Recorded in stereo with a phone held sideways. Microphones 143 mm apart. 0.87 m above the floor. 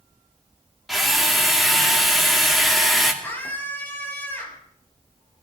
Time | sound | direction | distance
0.9 | a drill | centre (ahead or behind) | 2.5 m
3.2 | a scream | 15° left (ahead or behind) | 6.5 m